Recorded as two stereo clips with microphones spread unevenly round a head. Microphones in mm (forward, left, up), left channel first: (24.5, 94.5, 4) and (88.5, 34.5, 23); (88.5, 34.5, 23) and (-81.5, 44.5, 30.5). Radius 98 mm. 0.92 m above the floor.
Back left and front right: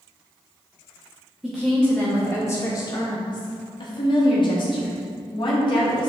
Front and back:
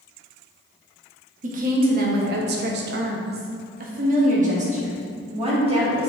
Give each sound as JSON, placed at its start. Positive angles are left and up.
{"t": 1.4, "sound": "a woman speaking", "azimuth_deg": -135, "distance_m": 1.2}